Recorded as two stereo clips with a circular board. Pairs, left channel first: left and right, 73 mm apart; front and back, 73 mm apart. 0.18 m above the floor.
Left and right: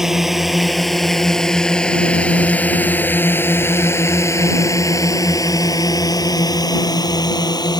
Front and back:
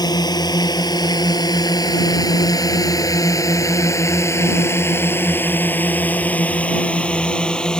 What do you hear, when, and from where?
0.0 s a drone: 5° right; by 7.8 s 80° left